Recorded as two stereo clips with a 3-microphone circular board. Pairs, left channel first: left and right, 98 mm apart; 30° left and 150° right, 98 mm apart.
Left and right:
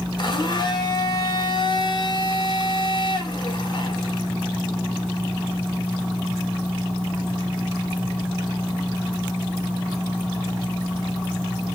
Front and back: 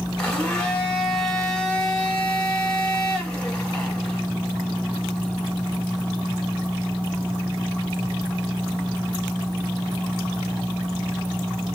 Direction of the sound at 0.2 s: 105° left.